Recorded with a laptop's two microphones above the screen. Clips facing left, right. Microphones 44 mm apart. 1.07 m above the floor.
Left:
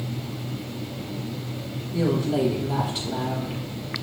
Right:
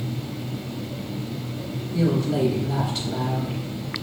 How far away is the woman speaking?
About 1.3 m.